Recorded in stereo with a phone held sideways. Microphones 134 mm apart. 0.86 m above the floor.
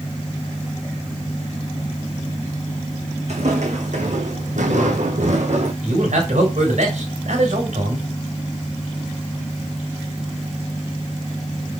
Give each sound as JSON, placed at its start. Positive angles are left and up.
{"t": 3.3, "sound": "footsteps", "side_deg": -60, "distance_m": 3.5}
{"t": 5.8, "sound": "a man speaking", "side_deg": -70, "distance_m": 4.0}